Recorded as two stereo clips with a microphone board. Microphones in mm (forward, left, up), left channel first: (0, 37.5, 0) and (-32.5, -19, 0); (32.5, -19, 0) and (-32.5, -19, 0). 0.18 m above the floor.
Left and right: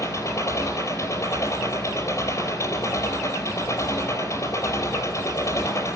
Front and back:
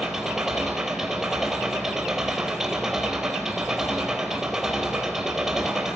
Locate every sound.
0.0 s an engine running: 95° left, 4.5 m